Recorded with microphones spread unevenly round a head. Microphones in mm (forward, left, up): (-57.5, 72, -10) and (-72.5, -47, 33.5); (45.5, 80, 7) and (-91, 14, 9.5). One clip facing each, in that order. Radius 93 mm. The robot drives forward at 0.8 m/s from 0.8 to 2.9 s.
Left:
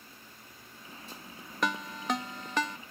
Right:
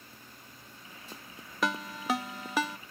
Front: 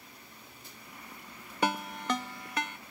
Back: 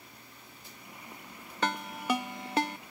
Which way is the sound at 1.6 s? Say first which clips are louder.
Right 1 dB, front 1 dB; 45° right.